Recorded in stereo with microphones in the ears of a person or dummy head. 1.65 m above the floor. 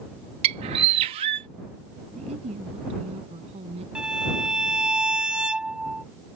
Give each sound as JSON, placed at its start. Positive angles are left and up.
{"t": 0.4, "sound": "a bird", "side_deg": -30}
{"t": 2.1, "sound": "a woman speaking", "side_deg": -35}
{"t": 4.0, "sound": "a violin", "side_deg": -5}